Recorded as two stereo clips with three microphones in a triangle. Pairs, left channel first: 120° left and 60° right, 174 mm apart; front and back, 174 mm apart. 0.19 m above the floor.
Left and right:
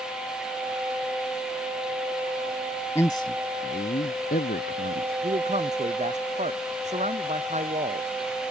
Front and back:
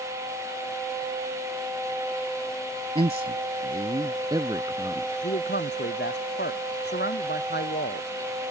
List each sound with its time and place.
3.0 s a man speaking: 175° right; by 5.1 s 105° left
5.2 s a man speaking: 10° right